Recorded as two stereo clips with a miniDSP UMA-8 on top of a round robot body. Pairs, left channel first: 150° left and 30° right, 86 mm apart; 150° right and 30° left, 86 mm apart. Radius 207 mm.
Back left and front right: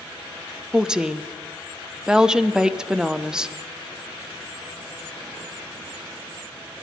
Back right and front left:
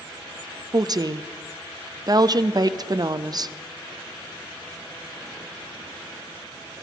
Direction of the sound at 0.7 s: 50° left.